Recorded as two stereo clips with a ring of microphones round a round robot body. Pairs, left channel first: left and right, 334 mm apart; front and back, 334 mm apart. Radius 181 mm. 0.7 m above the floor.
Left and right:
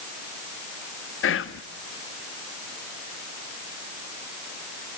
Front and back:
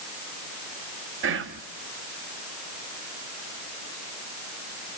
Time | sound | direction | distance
1.2 | whispering | 135° left | 1.1 m